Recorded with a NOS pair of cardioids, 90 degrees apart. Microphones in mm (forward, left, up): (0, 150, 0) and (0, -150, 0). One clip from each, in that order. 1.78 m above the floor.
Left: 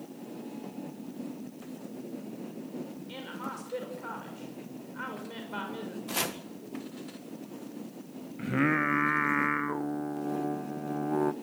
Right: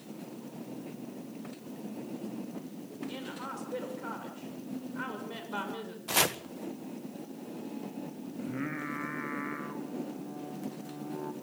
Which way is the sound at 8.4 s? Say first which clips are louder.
Left 10 dB; 65° left.